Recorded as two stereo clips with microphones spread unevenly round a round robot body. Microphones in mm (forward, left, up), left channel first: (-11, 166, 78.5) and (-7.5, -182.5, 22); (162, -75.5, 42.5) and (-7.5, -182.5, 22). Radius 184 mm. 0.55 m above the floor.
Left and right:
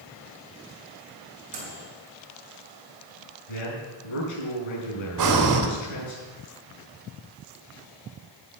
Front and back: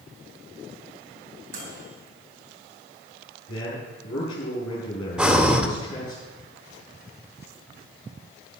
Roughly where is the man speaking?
Left.